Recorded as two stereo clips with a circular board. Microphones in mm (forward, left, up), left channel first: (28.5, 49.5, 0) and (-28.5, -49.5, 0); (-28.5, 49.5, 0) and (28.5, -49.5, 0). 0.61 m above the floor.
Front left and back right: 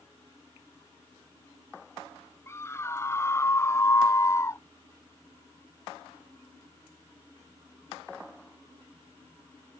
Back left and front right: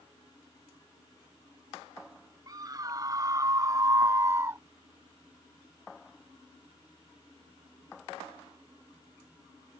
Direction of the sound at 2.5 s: 5° right.